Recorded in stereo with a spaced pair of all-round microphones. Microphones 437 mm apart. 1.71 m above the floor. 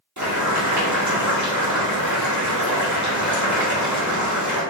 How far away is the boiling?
About 1.2 m.